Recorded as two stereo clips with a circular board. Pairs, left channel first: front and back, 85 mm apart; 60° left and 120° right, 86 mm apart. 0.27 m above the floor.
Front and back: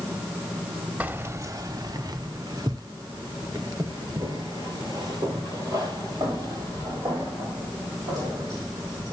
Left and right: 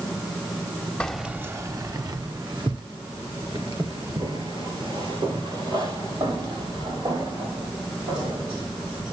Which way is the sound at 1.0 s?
125° left.